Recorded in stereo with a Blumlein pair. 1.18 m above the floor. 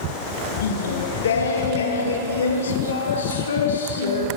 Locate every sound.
0.6 s singing: 65° left, 0.8 m